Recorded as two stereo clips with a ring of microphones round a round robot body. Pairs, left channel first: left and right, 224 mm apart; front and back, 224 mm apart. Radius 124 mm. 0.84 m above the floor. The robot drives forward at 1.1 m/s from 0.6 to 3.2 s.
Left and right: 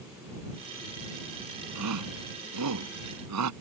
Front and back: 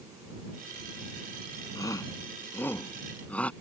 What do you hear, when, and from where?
1.8 s a shout: 75° right; by 3.5 s 85° right